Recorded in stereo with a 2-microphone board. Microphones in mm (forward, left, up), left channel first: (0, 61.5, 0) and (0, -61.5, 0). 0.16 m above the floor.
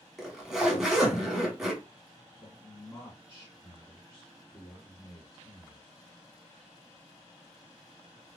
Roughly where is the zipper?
Centre.